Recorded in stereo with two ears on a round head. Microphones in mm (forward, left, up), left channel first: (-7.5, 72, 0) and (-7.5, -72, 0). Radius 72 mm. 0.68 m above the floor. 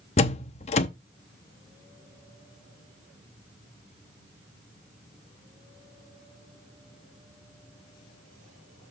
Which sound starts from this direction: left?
A door slam, at 0.2 s.